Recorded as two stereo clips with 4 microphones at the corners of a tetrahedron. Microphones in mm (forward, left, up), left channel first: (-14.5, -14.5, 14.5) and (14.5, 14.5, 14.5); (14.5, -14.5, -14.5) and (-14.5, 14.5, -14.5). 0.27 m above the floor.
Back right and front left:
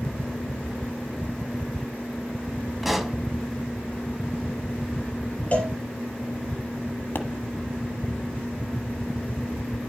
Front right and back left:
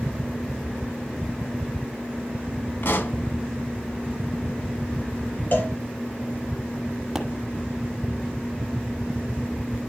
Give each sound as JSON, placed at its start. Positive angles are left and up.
{"t": 2.8, "sound": "a pop", "azimuth_deg": -40, "distance_m": 1.0}
{"t": 5.5, "sound": "a cowbell", "azimuth_deg": -80, "distance_m": 3.5}
{"t": 7.2, "sound": "a pop", "azimuth_deg": -140, "distance_m": 1.2}